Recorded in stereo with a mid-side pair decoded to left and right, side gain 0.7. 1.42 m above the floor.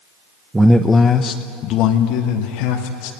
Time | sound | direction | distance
0.5 | a man speaking | 15° right | 0.8 m